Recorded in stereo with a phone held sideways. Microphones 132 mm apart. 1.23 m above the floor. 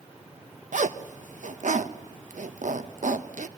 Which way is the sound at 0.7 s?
80° right.